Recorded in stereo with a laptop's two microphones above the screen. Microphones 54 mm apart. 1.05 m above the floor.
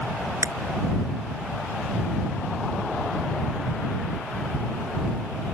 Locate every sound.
0.4 s breaking glass: 80° right